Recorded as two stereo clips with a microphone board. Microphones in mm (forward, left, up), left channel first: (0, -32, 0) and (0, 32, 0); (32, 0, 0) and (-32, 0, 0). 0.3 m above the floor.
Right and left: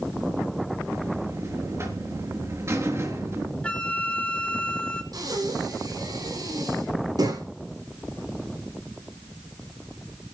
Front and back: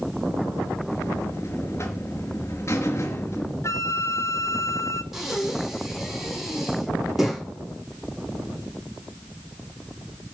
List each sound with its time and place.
0.9 s a buzzer: 45° left, 3.5 m
3.6 s a flute: 25° right, 1.0 m
5.1 s breathing: 95° left, 5.5 m